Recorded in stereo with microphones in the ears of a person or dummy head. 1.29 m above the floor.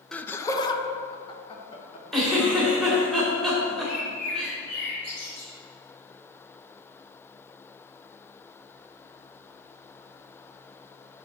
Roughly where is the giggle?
Centre.